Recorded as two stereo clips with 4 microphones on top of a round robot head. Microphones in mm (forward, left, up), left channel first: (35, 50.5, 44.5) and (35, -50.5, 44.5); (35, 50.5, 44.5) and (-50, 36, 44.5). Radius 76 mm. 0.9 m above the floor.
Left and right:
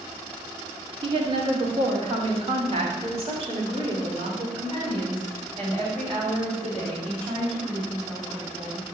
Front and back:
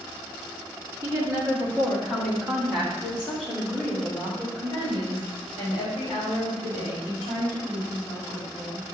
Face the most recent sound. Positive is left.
turn(degrees=-50)